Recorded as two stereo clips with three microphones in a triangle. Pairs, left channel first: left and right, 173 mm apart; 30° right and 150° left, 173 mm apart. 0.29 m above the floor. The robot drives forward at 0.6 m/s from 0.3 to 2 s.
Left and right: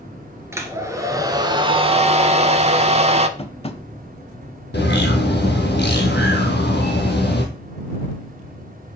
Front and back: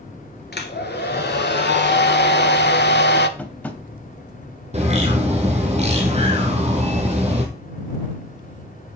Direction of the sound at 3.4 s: 45° left.